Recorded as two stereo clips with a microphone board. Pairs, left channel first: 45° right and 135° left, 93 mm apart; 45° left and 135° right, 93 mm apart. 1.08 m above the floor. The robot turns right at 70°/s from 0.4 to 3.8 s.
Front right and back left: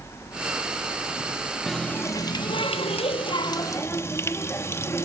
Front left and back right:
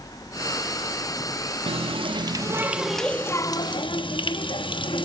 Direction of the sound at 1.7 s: 135° right.